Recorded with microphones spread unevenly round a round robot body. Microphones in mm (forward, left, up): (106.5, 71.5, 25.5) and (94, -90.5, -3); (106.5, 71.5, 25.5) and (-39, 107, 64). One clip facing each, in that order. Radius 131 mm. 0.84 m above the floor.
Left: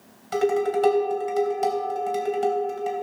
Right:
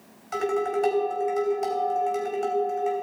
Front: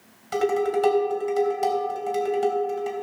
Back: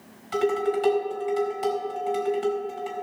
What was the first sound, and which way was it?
Dishes clattering, 30° left.